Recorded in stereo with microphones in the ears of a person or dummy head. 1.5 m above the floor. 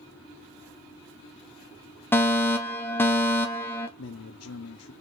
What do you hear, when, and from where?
2.1 s a fire alarm: 15° left (ahead or behind), 0.9 m
4.0 s a man speaking: 75° left (ahead or behind), 0.9 m